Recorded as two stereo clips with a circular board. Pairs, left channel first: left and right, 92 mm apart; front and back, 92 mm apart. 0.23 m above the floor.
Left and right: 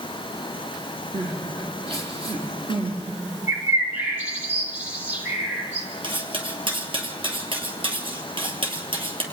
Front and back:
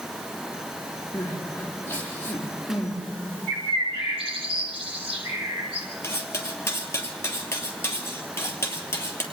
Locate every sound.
1.1 s crying: 65° right, 3.5 m
3.5 s a bird: 165° right, 5.5 m
6.0 s cutlery clinking: 65° right, 3 m